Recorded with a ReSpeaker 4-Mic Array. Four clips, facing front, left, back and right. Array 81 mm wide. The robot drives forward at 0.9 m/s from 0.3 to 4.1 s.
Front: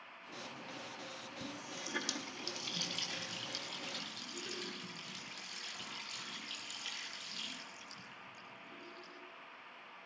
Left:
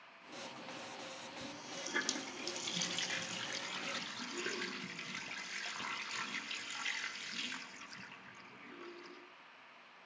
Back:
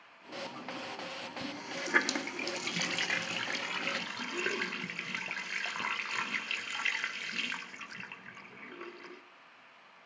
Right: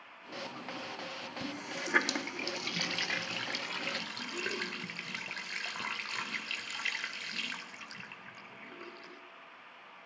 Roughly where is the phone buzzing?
No phone buzzing in this recording.